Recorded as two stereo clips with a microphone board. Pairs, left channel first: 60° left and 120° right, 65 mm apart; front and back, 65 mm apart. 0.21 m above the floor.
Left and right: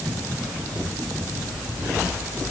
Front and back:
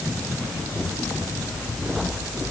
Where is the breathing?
No breathing in this recording.